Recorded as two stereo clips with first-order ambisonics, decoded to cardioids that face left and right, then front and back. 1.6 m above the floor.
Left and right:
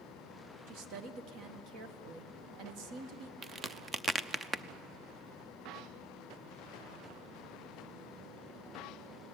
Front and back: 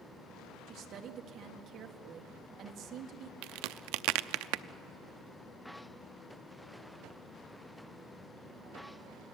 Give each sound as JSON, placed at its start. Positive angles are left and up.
{"t": 0.7, "sound": "a woman speaking", "azimuth_deg": -125, "distance_m": 1.9}
{"t": 3.4, "sound": "a crack", "azimuth_deg": -165, "distance_m": 0.6}